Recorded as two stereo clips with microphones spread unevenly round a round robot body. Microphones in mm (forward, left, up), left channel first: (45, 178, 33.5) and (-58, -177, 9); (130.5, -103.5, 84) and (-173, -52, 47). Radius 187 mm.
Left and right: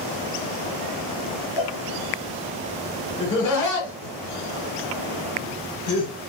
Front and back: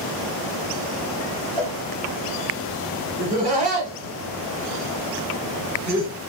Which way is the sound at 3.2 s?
115° left.